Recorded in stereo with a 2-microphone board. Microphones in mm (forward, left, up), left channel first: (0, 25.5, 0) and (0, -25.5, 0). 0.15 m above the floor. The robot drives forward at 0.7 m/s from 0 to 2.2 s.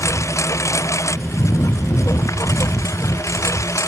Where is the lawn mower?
80° left; by 3.9 s 85° left.